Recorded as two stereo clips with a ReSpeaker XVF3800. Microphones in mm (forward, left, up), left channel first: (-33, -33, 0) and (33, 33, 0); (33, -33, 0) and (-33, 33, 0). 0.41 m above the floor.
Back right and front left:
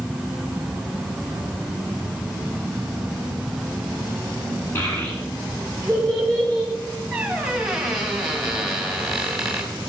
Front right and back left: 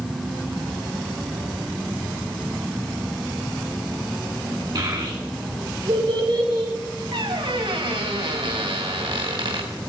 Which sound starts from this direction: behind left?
A squeak, at 7.1 s.